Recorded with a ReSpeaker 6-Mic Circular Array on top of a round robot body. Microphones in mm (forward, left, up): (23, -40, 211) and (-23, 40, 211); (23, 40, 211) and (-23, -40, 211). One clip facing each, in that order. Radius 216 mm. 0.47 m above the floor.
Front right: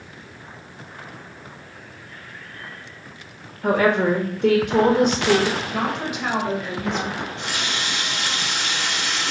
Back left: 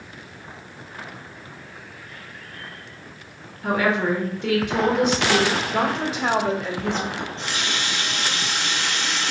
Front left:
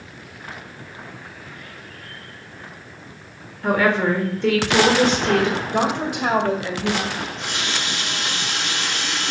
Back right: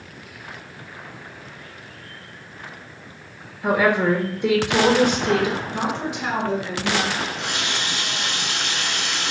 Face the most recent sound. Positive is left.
turn(degrees=-135)